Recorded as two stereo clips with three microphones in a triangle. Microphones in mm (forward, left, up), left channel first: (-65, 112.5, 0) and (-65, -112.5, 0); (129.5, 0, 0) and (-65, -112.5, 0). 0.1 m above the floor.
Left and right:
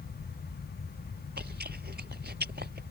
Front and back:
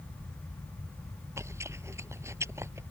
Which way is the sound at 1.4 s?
75° right.